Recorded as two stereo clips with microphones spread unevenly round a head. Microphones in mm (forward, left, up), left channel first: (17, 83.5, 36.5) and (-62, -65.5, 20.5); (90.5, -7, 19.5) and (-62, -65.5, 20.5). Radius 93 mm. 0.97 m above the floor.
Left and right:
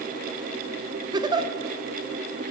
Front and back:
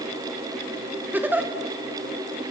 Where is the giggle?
90° right, 0.8 m.